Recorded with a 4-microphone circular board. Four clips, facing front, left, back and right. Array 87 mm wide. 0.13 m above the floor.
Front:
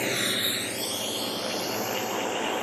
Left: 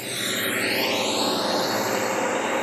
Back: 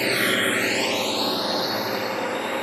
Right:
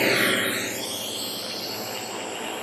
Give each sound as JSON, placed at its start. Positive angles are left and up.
{"t": 0.0, "sound": "a drone", "azimuth_deg": -105}